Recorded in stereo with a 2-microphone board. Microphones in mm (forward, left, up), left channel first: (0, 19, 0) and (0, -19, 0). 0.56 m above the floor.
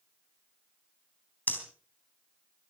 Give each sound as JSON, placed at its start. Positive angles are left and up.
{"t": 1.5, "sound": "breathing", "side_deg": 50, "distance_m": 3.5}